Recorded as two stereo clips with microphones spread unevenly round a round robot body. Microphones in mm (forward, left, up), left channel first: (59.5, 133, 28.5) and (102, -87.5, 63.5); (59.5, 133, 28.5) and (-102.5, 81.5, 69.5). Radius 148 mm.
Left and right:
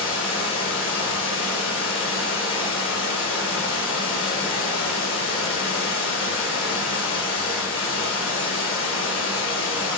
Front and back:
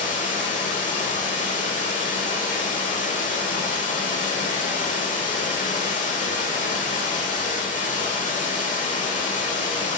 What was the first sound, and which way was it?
Running water, 65° left.